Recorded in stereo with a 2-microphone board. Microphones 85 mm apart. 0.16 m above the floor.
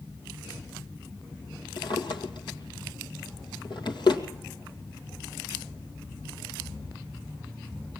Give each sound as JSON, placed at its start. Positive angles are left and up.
{"t": 1.8, "sound": "a drawer", "side_deg": 65, "distance_m": 2.0}